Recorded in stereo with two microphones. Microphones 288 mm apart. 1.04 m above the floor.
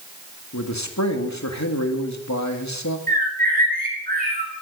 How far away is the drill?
No drill in this recording.